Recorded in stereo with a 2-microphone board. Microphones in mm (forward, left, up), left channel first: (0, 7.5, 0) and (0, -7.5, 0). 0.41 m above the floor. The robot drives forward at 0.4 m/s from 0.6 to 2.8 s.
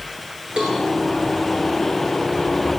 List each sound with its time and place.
0.6 s a cowbell: 80° right, 6 m